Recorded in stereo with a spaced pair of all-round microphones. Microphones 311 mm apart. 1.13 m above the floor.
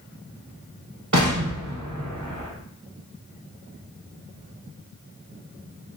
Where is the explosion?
65° right (ahead or behind), 0.8 m.